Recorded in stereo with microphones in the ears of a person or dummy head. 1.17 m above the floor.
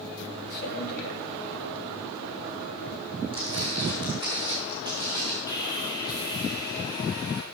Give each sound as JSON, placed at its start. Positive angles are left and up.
{"t": 0.5, "sound": "a man speaking", "side_deg": 50, "distance_m": 2.0}
{"t": 3.3, "sound": "footsteps", "side_deg": -20, "distance_m": 2.5}
{"t": 5.5, "sound": "sawing", "side_deg": 20, "distance_m": 2.5}